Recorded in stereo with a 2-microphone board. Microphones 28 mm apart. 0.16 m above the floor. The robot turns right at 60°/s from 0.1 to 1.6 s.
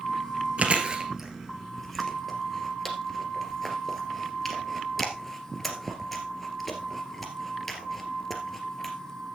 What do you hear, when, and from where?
0.6 s chewing: 50° right (ahead or behind), 2 m; by 8.9 s 5° left (ahead or behind), 2 m